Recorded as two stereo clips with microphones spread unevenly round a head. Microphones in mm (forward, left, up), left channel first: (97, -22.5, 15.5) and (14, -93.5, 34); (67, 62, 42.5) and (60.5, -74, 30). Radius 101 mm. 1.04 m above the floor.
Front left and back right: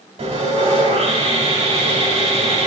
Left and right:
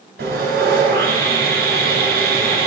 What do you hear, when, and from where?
0.2 s sawing: 120° right, 2 m